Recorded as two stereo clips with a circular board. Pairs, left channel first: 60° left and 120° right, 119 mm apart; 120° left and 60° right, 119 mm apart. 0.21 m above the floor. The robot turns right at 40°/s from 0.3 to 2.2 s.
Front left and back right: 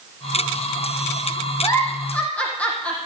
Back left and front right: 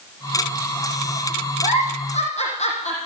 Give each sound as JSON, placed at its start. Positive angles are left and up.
{"t": 1.6, "sound": "a giggle", "azimuth_deg": 115, "distance_m": 4.5}